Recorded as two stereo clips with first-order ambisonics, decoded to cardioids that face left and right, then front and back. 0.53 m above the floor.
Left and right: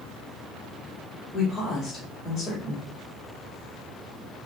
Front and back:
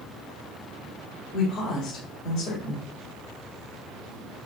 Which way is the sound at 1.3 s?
25° left.